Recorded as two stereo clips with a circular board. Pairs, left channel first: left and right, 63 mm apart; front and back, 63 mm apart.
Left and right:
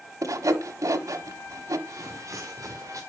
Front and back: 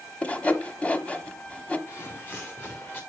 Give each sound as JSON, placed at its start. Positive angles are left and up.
{"t": 0.2, "sound": "sawing", "azimuth_deg": -70, "distance_m": 1.0}
{"t": 1.9, "sound": "footsteps", "azimuth_deg": -55, "distance_m": 1.7}